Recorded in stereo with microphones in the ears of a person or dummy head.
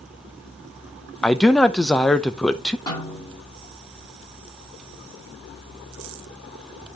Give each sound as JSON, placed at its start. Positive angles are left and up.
{"t": 1.2, "sound": "a man speaking", "side_deg": 10, "distance_m": 0.5}
{"t": 2.9, "sound": "a snare drum", "side_deg": 30, "distance_m": 4.5}